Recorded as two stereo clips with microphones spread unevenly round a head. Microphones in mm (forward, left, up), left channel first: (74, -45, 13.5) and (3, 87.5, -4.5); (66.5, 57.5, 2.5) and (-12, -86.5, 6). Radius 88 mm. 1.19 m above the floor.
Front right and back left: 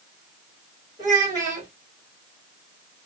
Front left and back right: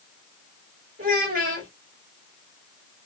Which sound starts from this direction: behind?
A child speaking, at 1.0 s.